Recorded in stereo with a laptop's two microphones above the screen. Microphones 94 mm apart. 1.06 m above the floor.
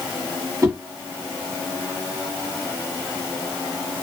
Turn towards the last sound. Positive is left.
turn(degrees=-35)  # may be behind; listen again after turning